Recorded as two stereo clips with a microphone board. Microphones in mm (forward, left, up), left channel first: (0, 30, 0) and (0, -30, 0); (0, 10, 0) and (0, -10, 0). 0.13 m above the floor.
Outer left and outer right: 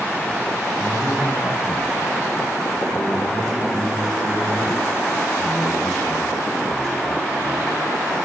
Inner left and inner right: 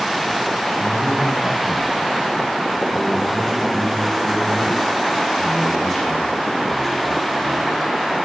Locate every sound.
0.8 s a man speaking: 20° left (ahead or behind), 6 m